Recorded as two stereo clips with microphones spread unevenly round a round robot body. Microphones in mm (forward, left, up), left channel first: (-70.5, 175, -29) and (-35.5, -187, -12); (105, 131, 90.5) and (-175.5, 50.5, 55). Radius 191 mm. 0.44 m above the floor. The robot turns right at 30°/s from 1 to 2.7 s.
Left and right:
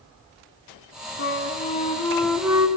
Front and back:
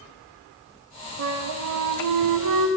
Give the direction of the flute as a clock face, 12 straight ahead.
7 o'clock.